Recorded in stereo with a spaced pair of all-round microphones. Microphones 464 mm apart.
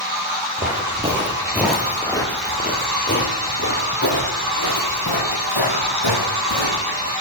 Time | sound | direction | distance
0.6 | footsteps | 20° right (ahead or behind) | 2.5 m